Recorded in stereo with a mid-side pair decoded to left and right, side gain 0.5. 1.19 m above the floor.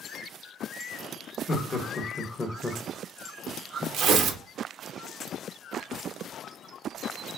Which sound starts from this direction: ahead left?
Laughter, at 1.5 s.